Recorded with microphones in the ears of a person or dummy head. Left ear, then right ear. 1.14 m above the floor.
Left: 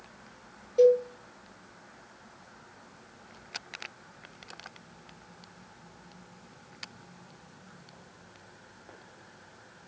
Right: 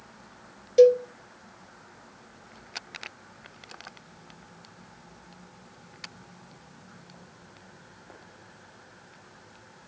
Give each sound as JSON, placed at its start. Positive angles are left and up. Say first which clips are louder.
{"t": 0.8, "sound": "a cowbell", "louder": "right 4 dB", "side_deg": -60, "distance_m": 0.5}